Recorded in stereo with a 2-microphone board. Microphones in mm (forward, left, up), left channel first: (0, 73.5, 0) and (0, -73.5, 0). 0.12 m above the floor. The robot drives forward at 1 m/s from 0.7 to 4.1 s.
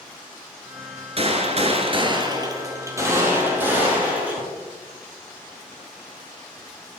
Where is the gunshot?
40° right (ahead or behind), 0.9 m; by 4.4 s 10° right (ahead or behind), 3 m.